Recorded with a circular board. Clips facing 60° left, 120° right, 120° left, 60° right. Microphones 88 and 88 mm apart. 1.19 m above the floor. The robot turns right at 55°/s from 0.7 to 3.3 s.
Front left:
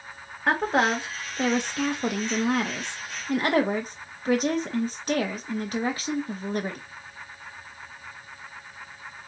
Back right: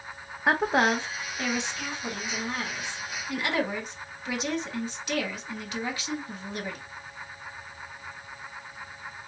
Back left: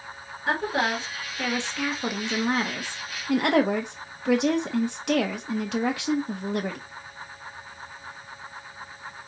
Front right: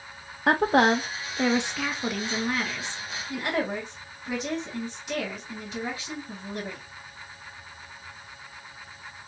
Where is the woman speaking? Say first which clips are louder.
Even, front right 5 dB; 35° right, 1.2 m; by 6.8 s 105° left, 1.2 m.